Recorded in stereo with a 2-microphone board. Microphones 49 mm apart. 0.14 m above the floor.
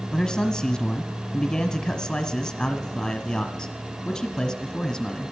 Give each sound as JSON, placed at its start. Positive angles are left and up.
{"t": 0.1, "sound": "a man speaking", "side_deg": 15, "distance_m": 1.3}